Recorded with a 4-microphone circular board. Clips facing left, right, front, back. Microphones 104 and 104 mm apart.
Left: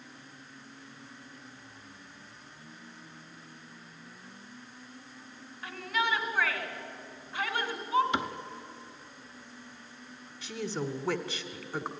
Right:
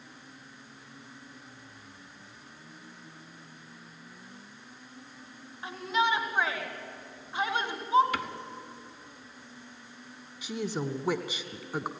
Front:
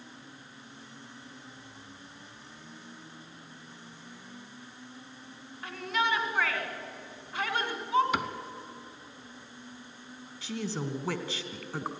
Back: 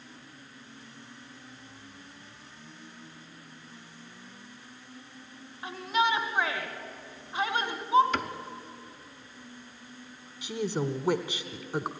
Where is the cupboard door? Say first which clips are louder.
Left 2 dB, even; 65° left, 1.1 m.